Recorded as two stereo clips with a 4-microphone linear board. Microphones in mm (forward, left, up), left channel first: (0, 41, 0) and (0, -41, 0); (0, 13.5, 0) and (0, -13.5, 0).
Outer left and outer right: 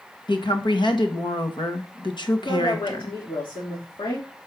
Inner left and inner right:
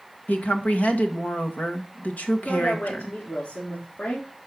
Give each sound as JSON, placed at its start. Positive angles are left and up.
{"t": 0.3, "sound": "a woman speaking", "side_deg": 65, "distance_m": 1.5}
{"t": 2.4, "sound": "a woman speaking", "side_deg": 70, "distance_m": 3.0}